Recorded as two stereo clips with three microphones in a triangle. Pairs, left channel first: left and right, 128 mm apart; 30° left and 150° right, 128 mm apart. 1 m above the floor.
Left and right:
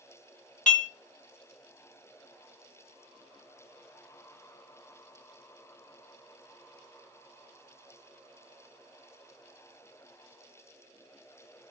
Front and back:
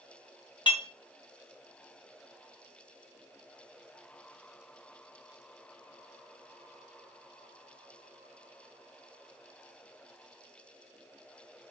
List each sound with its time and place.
0.7 s dishes clattering: 80° left, 1.4 m